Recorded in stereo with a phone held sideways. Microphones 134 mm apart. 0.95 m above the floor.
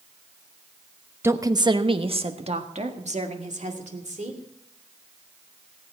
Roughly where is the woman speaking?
Centre.